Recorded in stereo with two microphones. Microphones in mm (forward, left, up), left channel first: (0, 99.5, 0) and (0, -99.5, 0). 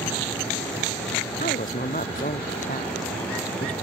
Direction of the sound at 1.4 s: 45° left (ahead or behind).